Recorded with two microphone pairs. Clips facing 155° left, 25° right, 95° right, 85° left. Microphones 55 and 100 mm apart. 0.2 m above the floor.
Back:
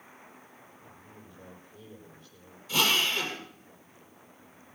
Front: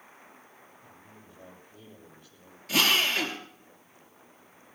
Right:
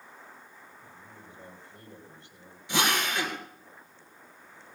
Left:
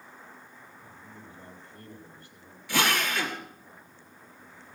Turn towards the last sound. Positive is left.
turn(degrees=-25)